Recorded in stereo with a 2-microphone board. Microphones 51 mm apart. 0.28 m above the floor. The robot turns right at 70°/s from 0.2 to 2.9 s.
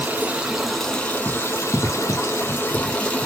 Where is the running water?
35° right, 1.0 m; by 3.3 s 155° left, 1.0 m.